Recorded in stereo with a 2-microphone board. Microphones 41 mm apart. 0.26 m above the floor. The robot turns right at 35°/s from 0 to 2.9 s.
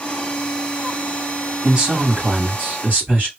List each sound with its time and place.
1.6 s a man speaking: 145° right, 2.0 m; by 3.3 s 100° right, 2.0 m